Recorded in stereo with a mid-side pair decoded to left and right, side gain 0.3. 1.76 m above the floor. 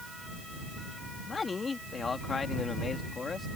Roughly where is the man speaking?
Ahead left.